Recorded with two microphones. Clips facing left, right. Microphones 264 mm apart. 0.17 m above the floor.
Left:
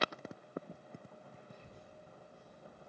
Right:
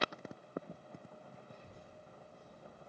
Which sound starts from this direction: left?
A child speaking, at 1.5 s.